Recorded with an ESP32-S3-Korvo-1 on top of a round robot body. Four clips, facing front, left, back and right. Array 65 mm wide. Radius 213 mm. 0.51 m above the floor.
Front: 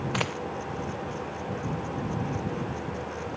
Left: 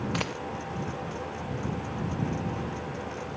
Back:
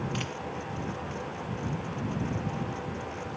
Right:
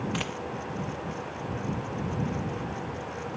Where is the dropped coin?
20° left.